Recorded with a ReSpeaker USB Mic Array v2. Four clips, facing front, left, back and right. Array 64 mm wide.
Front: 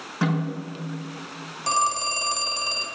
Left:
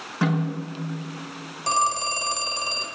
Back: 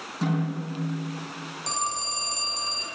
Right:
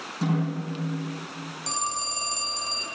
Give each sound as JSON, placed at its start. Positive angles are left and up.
{"t": 0.2, "sound": "a snare drum", "azimuth_deg": 50, "distance_m": 6.0}
{"t": 1.7, "sound": "a phone ringing", "azimuth_deg": 55, "distance_m": 1.5}